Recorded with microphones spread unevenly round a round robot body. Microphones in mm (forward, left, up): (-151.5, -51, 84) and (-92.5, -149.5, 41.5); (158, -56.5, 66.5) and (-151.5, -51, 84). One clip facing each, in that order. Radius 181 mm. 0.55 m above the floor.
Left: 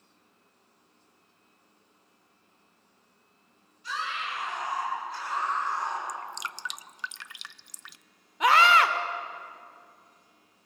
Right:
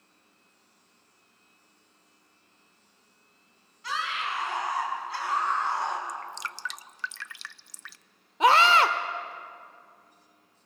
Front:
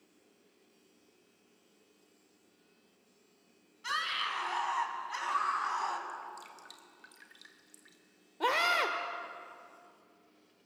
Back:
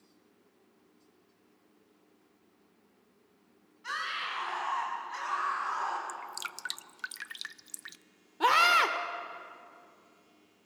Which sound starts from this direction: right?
A scream, at 8.4 s.